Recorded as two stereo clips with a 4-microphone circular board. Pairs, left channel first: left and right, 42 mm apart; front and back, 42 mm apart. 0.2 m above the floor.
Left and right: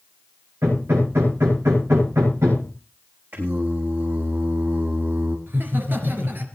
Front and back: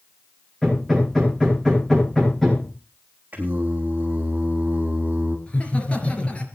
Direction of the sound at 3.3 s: 130° right.